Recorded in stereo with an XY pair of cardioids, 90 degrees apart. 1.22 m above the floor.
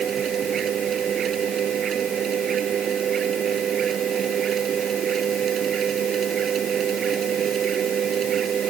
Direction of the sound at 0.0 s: 65° right.